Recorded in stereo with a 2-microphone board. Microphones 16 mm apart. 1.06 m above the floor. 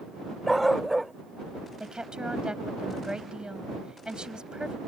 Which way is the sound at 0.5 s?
Centre (ahead or behind).